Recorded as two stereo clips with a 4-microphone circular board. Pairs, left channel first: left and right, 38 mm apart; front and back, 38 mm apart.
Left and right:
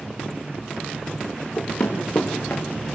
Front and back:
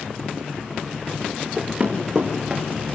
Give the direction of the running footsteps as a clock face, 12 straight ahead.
8 o'clock.